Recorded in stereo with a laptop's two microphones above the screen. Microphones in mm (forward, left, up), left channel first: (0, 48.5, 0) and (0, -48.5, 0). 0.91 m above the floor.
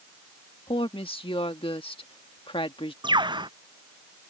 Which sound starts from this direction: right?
A bird, at 3.0 s.